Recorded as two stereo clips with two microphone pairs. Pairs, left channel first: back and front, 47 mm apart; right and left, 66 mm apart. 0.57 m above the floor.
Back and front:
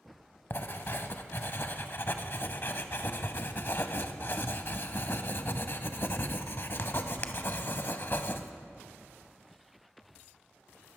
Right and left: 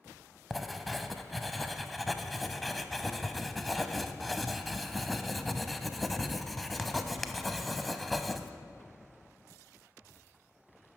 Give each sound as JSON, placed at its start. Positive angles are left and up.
{"t": 0.5, "sound": "writing", "azimuth_deg": 180, "distance_m": 0.5}